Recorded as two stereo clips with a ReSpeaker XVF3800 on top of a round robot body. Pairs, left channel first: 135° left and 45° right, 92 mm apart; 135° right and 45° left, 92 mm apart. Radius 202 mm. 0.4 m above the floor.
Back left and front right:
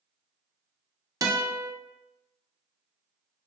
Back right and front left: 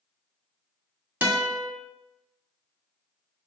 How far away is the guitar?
About 1.0 m.